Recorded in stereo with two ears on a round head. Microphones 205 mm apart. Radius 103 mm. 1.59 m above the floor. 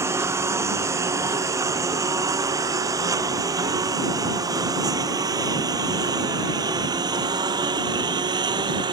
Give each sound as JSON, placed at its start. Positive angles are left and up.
{"t": 0.0, "sound": "a lawn mower", "side_deg": -10}